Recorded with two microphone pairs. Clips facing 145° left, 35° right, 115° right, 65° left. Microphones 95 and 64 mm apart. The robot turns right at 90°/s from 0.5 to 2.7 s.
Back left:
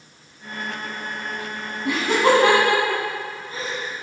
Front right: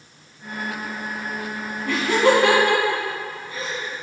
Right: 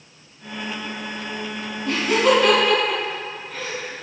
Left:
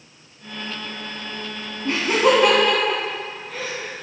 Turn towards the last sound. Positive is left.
turn(degrees=155)